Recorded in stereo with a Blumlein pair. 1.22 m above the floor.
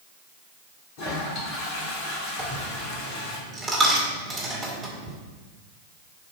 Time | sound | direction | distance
1.0 | a toilet flushing | 45° left | 2 m
2.4 | a dropped coin | 20° right | 2 m